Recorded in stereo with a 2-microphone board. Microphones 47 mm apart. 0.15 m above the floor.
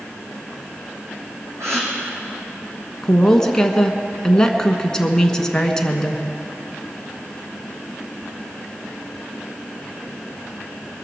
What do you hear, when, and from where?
1.6 s a gasp: 80° right, 4 m
3.0 s a woman speaking: 15° left (ahead or behind), 1.3 m